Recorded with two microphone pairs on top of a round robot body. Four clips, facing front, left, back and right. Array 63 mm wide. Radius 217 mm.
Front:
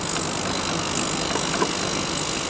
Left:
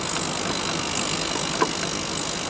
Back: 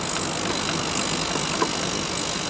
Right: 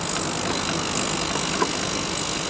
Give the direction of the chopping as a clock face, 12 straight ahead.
No chopping in this recording.